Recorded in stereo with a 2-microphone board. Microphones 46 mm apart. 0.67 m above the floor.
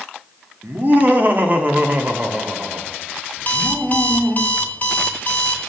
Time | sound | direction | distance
0.6 | laughter | 50° right (ahead or behind) | 1.7 m
3.4 | an alarm clock | 40° left (ahead or behind) | 1.1 m